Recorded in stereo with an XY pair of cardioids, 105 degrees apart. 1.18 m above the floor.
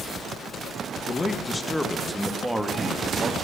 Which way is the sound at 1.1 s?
30° left.